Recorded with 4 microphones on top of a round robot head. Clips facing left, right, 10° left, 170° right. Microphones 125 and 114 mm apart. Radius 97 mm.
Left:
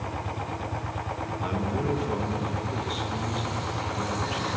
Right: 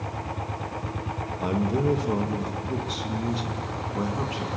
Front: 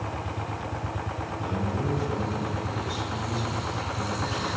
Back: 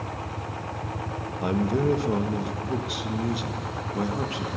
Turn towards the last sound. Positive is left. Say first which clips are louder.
# right 5 dB, back 7 dB
turn(degrees=-150)